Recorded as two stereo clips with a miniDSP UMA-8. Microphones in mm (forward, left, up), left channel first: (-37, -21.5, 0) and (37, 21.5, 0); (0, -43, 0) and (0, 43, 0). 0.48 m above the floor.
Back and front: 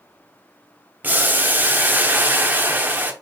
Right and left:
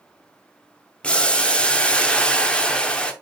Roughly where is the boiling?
Ahead.